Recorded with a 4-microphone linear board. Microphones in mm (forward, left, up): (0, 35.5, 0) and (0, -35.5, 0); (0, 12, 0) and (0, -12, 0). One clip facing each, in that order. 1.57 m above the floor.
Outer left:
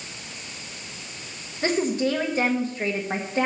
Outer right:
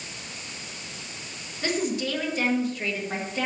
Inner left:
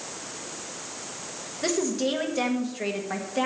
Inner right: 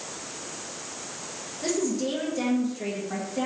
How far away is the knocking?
No knocking in this recording.